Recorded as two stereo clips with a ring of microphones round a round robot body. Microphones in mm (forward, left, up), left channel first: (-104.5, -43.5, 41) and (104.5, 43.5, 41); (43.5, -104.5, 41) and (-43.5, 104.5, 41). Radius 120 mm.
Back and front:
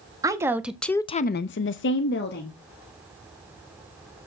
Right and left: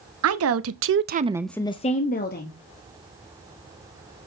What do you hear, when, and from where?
0.2 s a woman speaking: 100° left, 1.2 m; by 2.6 s 115° right, 1.5 m